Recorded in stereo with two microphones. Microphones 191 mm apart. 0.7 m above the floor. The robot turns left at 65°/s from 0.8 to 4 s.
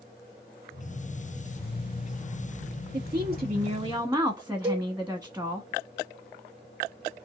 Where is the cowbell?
10° right (ahead or behind), 2.0 m.